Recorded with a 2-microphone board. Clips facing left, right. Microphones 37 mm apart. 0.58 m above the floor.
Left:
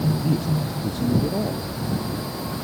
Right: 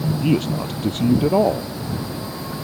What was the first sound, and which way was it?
A man speaking, 65° right (ahead or behind).